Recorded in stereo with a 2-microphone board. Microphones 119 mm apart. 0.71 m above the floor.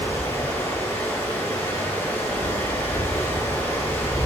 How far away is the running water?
About 1.8 m.